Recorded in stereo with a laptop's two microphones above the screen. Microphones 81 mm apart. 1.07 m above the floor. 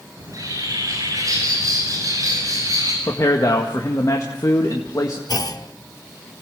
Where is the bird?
45° right (ahead or behind), 7.5 m.